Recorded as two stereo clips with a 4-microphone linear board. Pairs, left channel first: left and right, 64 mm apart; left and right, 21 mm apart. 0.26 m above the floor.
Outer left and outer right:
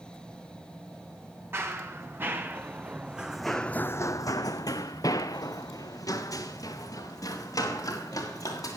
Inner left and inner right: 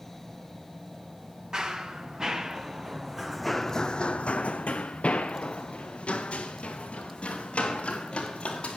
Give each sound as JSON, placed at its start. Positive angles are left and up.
{"t": 1.5, "sound": "running footsteps", "side_deg": -35, "distance_m": 2.0}